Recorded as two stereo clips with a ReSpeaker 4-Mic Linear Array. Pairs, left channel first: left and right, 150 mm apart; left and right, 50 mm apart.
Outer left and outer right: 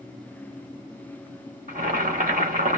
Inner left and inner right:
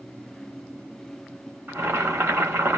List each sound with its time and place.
1.7 s boiling: 60° right (ahead or behind), 3 m